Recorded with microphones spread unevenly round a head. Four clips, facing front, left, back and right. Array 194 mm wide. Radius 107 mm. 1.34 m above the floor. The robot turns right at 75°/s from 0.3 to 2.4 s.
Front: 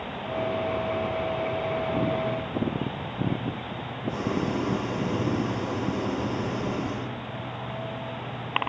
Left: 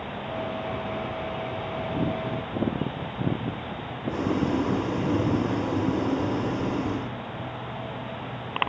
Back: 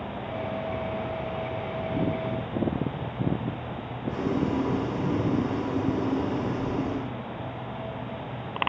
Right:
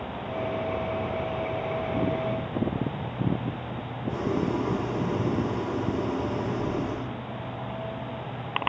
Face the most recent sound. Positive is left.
turn(degrees=100)